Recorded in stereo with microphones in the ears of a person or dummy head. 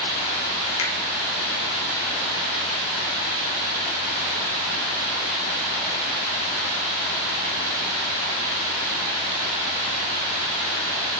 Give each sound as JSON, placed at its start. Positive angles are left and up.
{"t": 0.8, "sound": "a finger snap", "side_deg": 85, "distance_m": 1.9}